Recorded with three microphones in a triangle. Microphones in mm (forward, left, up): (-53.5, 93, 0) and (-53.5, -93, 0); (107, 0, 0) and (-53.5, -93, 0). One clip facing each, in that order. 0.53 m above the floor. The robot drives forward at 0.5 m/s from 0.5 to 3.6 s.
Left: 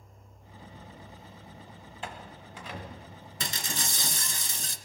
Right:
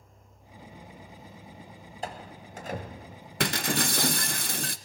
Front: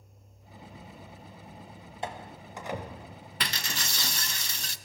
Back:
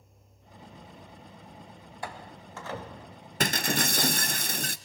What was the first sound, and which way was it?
A door slam, 40° right.